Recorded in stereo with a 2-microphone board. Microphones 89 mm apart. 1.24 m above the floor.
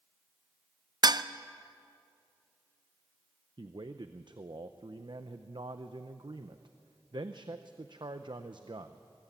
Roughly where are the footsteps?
No footsteps in this recording.